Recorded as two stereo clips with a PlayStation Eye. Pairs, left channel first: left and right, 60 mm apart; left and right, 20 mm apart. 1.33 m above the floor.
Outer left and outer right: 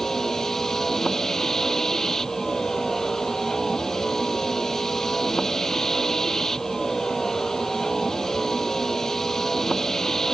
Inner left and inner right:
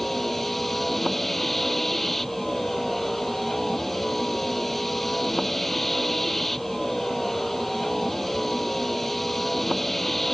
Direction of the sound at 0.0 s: 5° left (ahead or behind).